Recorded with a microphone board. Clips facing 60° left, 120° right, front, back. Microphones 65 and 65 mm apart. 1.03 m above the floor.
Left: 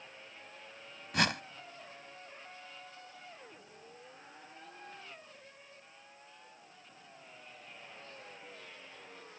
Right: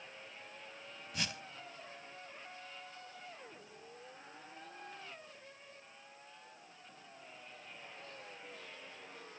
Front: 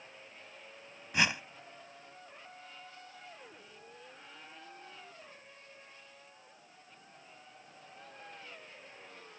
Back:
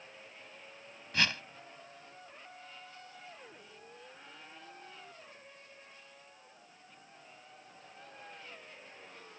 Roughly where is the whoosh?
Left.